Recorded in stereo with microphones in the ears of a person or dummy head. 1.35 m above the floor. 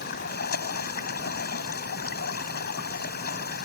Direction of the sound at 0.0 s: 55° left (ahead or behind).